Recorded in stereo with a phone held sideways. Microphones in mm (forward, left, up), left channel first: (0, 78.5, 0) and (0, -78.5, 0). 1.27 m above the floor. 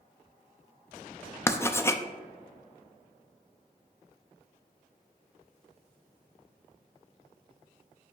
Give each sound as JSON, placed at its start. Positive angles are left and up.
{"t": 1.5, "sound": "writing", "side_deg": 15, "distance_m": 0.6}